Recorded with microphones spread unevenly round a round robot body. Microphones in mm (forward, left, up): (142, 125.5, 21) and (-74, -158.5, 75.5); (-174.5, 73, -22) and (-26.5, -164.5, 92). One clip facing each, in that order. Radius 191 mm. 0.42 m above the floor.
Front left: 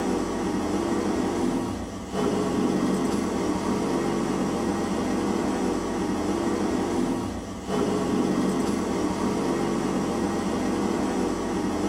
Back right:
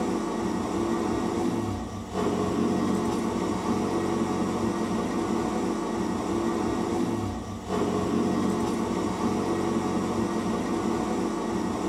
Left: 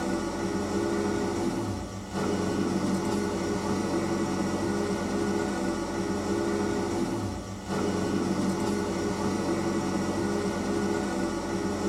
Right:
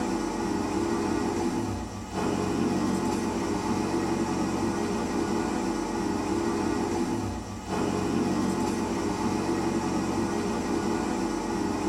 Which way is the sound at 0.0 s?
100° left.